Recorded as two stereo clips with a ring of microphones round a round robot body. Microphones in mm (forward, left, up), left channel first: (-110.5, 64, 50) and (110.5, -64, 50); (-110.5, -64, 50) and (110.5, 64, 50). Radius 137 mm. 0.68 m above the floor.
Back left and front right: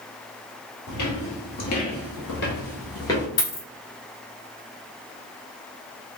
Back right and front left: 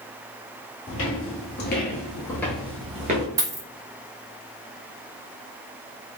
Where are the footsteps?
175° left, 1.3 m; by 3.3 s 70° left, 0.8 m.